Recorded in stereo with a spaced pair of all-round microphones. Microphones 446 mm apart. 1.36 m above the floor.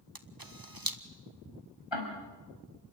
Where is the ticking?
85° left, 6 m.